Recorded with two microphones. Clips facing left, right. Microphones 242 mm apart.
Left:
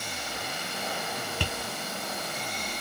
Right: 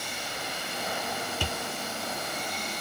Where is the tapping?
65° left (ahead or behind), 1.3 m.